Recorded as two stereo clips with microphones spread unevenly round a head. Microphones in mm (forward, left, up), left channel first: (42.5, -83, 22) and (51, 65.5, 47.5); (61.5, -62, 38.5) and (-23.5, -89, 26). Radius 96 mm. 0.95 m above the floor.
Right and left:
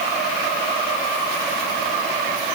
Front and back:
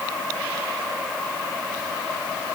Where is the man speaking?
I don't hear a man speaking.